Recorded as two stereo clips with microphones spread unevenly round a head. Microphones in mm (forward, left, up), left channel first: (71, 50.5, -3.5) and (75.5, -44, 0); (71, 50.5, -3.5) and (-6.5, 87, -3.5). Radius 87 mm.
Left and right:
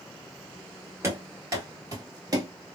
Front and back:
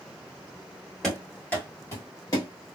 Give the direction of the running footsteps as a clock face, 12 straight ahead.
3 o'clock.